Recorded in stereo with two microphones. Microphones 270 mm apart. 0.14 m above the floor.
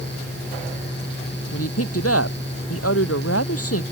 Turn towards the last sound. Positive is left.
turn(degrees=60)  # may be behind; listen again after turning